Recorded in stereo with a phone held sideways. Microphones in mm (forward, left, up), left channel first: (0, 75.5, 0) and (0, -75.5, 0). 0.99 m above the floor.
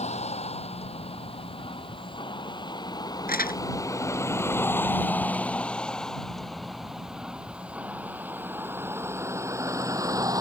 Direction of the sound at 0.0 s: 45° left (ahead or behind).